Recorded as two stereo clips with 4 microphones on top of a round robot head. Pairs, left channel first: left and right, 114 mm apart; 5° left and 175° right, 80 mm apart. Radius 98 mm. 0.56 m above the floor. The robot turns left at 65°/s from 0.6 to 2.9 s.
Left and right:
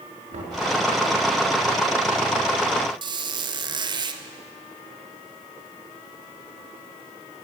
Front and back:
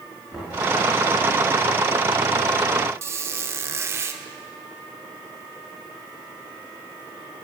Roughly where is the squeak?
Behind right.